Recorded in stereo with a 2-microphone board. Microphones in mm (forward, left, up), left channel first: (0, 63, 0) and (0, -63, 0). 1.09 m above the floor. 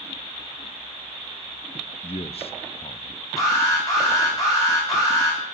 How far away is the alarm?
About 10 m.